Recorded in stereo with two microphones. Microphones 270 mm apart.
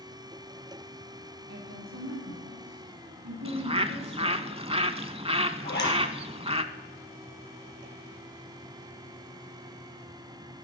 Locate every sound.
1.5 s a woman speaking: 75° right (ahead or behind), 4 m
3.5 s a bird: 20° right (ahead or behind), 0.6 m
5.6 s a zipper: 40° left (ahead or behind), 4 m